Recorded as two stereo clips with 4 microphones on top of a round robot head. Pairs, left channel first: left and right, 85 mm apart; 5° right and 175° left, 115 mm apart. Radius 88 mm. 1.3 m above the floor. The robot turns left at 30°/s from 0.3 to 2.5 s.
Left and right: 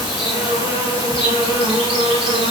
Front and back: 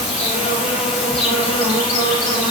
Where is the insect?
20° right, 4 m; by 2.5 s 85° right, 4 m.